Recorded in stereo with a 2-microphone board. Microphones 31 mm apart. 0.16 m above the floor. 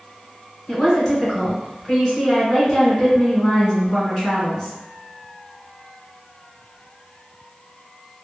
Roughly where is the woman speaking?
Left.